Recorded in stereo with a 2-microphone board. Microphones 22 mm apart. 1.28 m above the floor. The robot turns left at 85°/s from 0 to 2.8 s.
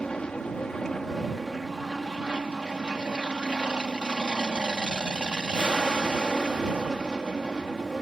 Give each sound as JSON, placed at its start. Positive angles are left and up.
{"t": 0.0, "sound": "an aircraft", "azimuth_deg": 125}